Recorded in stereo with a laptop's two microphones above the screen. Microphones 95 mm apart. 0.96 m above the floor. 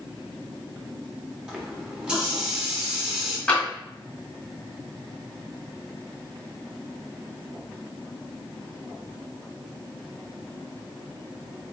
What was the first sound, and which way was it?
A running tap, 10° right (ahead or behind).